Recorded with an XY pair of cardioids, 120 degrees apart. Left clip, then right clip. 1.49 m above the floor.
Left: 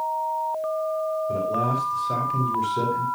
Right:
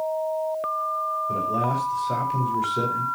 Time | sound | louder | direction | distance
1.3 | a man speaking | even | 5° right | 4.5 m